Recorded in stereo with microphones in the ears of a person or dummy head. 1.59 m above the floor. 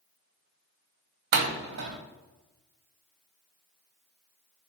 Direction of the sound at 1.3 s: 55° right (ahead or behind).